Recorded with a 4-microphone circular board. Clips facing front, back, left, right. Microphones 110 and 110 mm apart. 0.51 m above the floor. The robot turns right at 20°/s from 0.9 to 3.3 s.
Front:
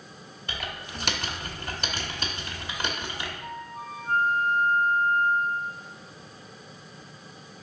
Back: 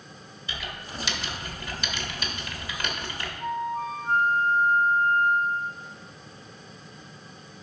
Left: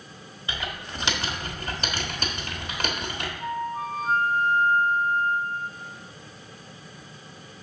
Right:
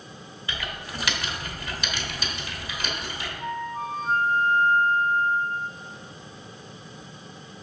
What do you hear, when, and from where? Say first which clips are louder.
0.5 s typing on a keyboard: front 1 dB, left 1 dB; 25° left, 1.1 m; by 3.3 s 70° left, 1.1 m
3.4 s a flute: back 9 dB, left 1 dB; straight behind, 0.8 m